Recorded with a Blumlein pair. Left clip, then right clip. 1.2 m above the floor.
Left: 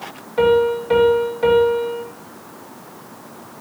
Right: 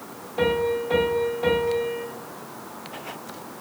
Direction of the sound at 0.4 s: 35° left.